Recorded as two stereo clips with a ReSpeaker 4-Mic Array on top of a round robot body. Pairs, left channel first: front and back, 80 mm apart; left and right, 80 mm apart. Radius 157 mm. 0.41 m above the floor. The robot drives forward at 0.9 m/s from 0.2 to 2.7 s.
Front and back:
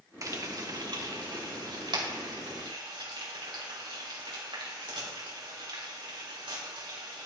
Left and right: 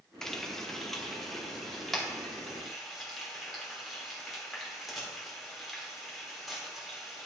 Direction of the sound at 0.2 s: 170° left.